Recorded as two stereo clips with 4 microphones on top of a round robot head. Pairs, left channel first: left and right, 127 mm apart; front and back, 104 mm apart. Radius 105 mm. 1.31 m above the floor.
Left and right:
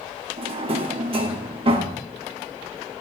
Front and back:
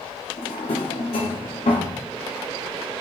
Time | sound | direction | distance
0.4 | a drawer | 50° right | 1.7 m